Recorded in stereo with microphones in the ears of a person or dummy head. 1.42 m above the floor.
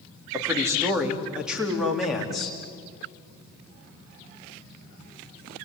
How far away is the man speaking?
About 3.5 m.